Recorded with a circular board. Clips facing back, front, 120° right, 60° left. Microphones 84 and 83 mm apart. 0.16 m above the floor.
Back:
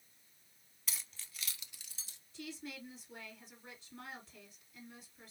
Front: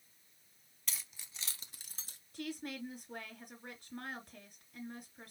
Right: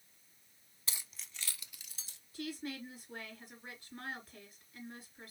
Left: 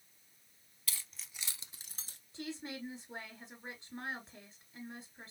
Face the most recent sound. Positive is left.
turn(degrees=0)